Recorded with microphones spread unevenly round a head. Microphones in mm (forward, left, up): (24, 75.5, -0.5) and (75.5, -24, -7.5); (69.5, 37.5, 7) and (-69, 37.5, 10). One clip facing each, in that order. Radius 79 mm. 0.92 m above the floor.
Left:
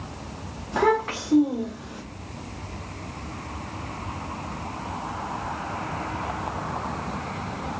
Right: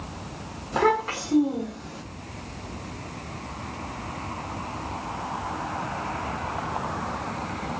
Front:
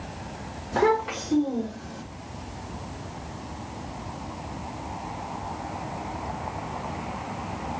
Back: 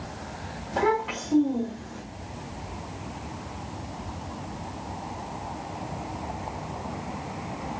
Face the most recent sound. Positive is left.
turn(degrees=40)